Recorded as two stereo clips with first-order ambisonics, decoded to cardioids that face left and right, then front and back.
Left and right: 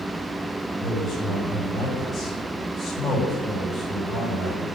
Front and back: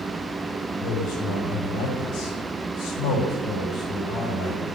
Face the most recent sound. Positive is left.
turn(degrees=15)